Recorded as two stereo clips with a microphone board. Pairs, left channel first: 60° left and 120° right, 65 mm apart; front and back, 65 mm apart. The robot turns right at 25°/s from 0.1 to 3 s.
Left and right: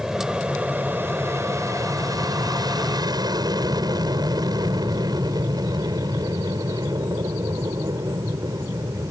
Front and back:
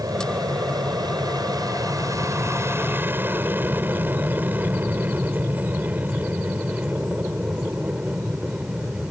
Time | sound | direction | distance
0.0 | an aircraft | 160° left | ?